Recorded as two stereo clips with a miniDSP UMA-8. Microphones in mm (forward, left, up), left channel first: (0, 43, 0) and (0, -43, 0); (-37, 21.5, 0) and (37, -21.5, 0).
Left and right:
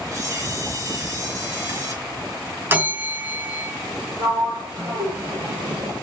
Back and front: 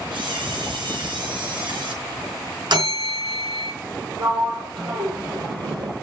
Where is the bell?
30° right, 3 m.